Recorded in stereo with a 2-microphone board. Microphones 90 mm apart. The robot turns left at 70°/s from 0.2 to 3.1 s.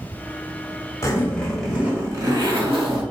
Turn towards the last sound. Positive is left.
turn(degrees=-105)